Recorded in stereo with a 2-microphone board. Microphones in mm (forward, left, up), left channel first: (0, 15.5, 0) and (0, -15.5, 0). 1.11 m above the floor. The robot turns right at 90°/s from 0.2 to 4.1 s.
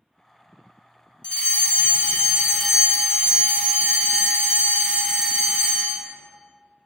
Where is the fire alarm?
60° left, 1.1 m; by 6.1 s 45° right, 1.1 m.